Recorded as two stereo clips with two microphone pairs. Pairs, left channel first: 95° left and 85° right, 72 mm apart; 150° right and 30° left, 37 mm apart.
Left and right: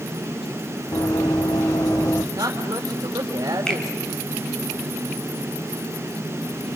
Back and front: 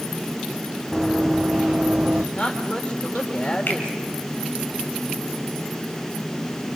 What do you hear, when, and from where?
0.9 s running footsteps: 115° left, 1.7 m; by 2.2 s 80° left, 1.4 m
2.3 s a woman speaking: 95° right, 3 m
3.7 s a finger snap: 175° left, 3 m